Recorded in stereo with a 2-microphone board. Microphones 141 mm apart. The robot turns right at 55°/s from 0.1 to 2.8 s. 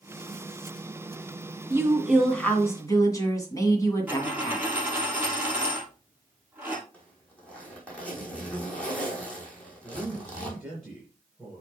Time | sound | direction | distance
1.7 | a woman speaking | 30° right | 2 m
4.1 | a dropped coin | 15° right (ahead or behind) | 2 m
6.9 | a zipper | 10° left (ahead or behind) | 3 m
9.8 | a man speaking | centre (ahead or behind) | 3 m